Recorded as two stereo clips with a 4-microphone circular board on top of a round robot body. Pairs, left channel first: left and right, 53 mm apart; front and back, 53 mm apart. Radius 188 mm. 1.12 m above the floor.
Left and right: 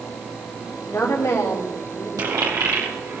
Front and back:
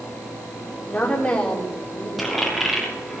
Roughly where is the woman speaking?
Ahead left.